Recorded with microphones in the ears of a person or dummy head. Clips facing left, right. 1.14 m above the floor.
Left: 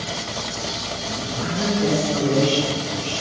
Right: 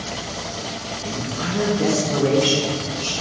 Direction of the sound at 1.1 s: 60° right (ahead or behind).